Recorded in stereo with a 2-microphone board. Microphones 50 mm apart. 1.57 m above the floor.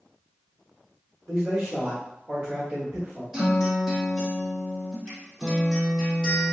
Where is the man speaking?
30° right (ahead or behind), 1.1 m.